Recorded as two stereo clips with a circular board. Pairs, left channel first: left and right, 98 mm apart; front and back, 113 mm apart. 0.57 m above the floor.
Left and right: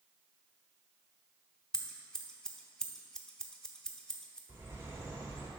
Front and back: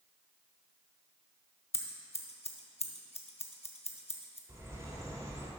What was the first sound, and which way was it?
Scissors, 10° left.